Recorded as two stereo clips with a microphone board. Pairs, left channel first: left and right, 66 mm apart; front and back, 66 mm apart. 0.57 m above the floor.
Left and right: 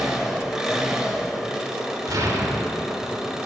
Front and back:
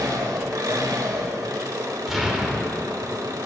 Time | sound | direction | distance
0.0 | an engine running | 170° right | 0.8 m
2.1 | an explosion | 95° right | 1.1 m